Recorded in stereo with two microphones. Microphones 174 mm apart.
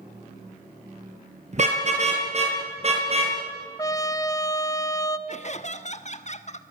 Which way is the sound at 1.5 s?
45° right (ahead or behind).